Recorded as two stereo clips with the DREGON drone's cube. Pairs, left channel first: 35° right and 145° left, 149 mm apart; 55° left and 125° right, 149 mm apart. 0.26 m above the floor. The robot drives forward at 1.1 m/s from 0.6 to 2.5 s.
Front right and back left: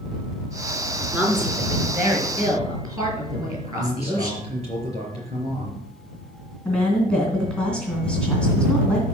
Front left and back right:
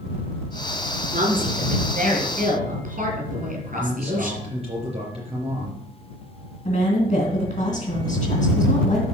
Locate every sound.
1.1 s a woman speaking: 135° right, 3.5 m; by 4.4 s 150° right, 4.5 m
3.7 s a man speaking: 170° right, 4 m
6.7 s a woman speaking: 50° left, 2.5 m